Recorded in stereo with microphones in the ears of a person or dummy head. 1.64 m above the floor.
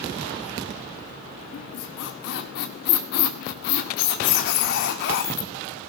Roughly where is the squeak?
Left.